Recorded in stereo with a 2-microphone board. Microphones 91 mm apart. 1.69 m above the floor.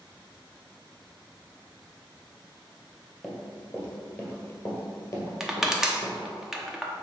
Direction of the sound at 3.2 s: 5° left (ahead or behind).